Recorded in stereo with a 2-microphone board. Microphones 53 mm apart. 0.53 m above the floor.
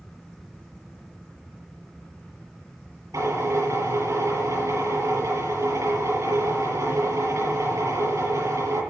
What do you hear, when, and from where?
3.1 s a drill: 80° right, 8.5 m